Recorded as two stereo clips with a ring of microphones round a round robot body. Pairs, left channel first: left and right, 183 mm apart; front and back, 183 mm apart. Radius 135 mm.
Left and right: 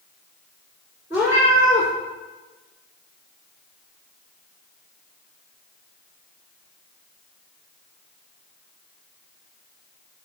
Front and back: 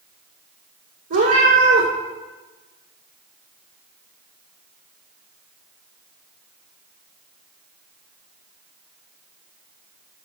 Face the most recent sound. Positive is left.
turn(degrees=-170)